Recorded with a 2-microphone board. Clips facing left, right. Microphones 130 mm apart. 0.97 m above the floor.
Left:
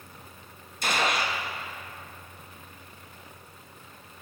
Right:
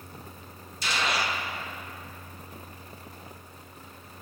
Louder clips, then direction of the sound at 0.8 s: Left 2 dB; 50° left (ahead or behind).